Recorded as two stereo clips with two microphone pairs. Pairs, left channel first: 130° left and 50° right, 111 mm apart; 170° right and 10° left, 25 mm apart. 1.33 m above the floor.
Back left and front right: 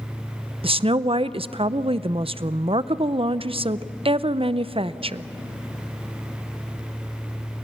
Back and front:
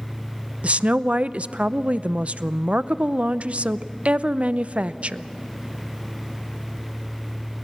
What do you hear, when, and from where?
0.6 s a woman speaking: 25° right, 0.6 m